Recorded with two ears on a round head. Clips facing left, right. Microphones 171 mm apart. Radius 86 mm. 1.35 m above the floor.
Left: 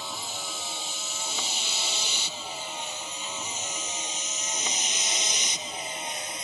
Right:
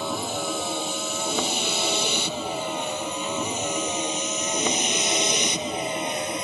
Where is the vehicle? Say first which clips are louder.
Right 11 dB; 50° right (ahead or behind); by 6.5 s 55° right (ahead or behind).